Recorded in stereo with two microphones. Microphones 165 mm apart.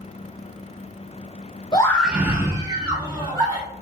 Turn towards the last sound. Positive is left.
turn(degrees=-30)  # may be behind; listen again after turning